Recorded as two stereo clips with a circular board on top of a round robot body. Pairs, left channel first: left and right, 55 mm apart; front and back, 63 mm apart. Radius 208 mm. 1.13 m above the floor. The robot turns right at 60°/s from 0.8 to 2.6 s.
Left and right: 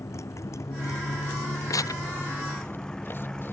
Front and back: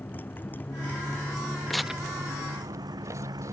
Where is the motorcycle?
60° left; by 3.5 s 170° left.